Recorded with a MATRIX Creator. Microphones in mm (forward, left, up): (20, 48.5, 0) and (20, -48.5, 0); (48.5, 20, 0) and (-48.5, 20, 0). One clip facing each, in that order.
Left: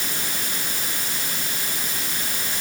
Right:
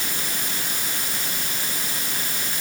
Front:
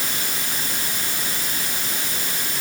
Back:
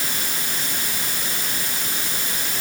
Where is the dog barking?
No dog barking in this recording.